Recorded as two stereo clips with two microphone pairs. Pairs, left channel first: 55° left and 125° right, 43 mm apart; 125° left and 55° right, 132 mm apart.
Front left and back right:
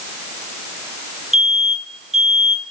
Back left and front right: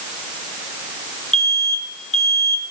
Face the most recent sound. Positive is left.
turn(degrees=150)